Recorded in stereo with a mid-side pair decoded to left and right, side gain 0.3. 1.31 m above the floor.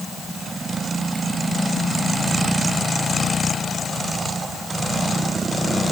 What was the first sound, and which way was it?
Only background noise.